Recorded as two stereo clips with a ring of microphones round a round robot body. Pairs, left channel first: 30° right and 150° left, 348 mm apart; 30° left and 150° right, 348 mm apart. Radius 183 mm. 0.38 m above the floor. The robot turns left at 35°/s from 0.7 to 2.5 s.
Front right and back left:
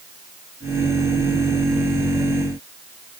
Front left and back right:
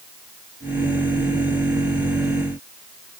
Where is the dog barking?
I don't hear a dog barking.